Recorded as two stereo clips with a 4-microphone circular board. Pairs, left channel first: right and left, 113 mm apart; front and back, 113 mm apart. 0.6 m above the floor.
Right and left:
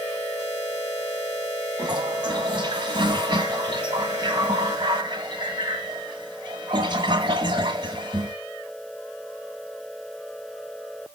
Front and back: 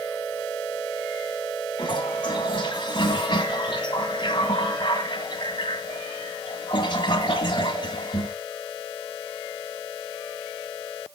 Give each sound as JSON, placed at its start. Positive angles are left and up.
{"t": 1.8, "sound": "a toilet flushing", "azimuth_deg": 45, "distance_m": 2.0}